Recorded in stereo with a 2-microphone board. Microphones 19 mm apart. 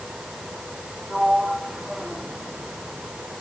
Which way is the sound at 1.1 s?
80° right.